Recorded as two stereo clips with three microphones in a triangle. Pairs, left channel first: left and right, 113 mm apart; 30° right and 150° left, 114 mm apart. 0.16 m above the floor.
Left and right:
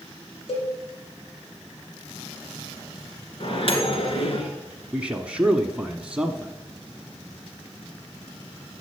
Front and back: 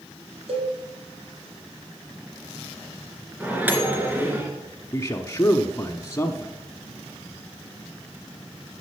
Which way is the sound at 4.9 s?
25° right.